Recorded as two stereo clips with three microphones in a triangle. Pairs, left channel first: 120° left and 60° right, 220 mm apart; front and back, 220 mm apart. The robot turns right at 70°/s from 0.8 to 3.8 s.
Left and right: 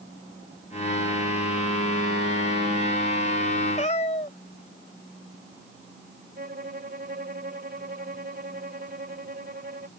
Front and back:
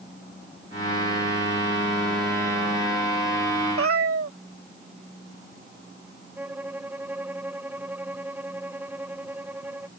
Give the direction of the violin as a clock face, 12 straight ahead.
3 o'clock.